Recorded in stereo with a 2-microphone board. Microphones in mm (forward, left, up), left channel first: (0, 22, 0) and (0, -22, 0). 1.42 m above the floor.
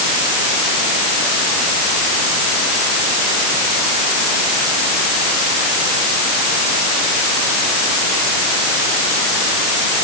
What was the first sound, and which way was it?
Only background noise.